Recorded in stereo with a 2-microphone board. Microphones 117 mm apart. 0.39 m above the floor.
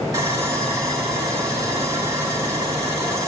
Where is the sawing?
25° right (ahead or behind), 2.5 m.